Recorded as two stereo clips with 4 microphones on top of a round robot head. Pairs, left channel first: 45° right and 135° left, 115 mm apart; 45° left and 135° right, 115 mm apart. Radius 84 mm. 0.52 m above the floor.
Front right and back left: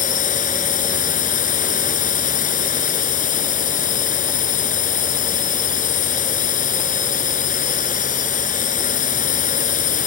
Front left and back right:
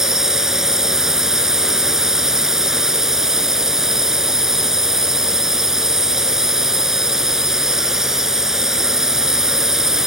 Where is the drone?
45° right.